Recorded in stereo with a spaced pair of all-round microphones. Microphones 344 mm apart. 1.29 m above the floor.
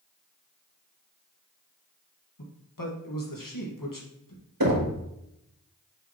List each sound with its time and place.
2.4 s a man speaking: 65° left (ahead or behind), 1.7 m
4.6 s knocking: 70° right (ahead or behind), 1.4 m